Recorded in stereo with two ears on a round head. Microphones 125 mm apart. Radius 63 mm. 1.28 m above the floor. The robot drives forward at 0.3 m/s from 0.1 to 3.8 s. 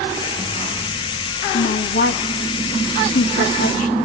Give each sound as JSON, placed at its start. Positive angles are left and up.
{"t": 1.5, "sound": "a woman speaking", "side_deg": 75, "distance_m": 3.0}